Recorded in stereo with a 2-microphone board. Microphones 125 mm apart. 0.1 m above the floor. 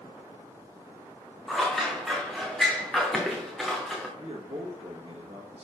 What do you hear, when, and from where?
1.5 s scissors: centre (ahead or behind), 1.8 m
4.2 s a man speaking: 50° right (ahead or behind), 2 m